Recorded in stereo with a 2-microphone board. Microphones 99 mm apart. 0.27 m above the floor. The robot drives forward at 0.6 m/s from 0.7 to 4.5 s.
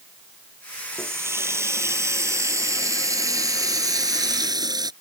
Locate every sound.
0.9 s a running tap: 25° right (ahead or behind); by 4.9 s 45° right (ahead or behind)